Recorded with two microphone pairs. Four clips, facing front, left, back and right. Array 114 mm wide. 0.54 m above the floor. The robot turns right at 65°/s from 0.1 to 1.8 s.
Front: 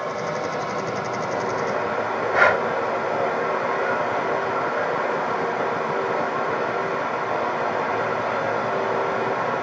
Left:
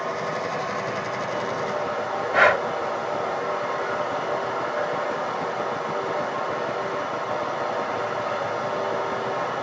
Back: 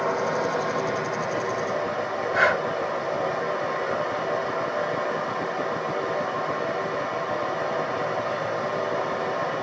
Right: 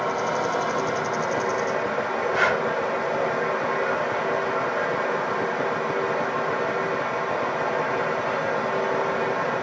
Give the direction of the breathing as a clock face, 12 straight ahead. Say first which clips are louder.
Left 5 dB, front 4 dB; 11 o'clock.